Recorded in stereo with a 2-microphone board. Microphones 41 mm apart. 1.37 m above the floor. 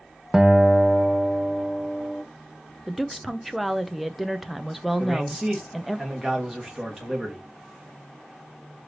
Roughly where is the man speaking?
Centre.